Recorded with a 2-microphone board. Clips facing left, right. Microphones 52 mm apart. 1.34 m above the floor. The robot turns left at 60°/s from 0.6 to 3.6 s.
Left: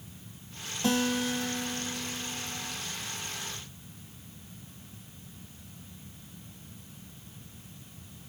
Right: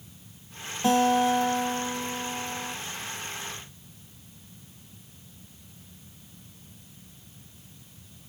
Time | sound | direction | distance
0.8 | a guitar | 15° right | 1.6 m